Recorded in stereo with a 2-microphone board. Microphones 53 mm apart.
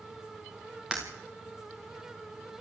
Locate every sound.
0.9 s breaking glass: 15° right (ahead or behind), 5.5 m